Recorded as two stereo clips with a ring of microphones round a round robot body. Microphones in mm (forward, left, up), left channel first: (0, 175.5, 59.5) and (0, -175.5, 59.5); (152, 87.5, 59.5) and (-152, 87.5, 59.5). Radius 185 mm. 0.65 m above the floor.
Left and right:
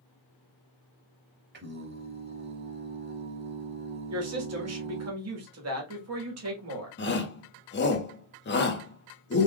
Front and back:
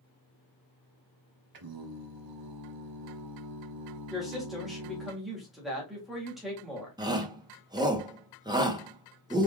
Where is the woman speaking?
90° right, 1.5 m.